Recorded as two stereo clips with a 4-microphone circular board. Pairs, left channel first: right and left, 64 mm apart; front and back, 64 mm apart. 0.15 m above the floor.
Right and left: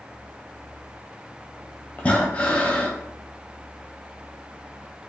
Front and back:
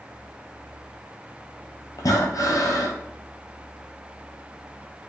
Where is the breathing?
25° right, 0.6 m.